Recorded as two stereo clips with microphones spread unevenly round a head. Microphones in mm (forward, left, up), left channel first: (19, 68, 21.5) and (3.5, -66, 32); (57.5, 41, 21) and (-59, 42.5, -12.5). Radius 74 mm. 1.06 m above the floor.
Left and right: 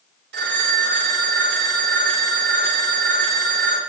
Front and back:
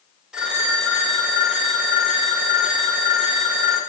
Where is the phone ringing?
95° right, 1.8 m.